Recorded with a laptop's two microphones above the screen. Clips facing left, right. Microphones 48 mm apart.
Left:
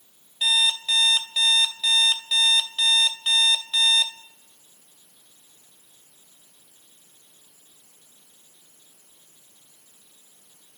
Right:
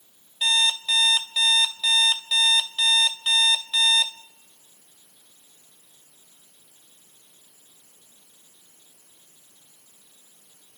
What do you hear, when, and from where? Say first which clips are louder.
0.4 s an alarm clock: even; centre (ahead or behind), 1.7 m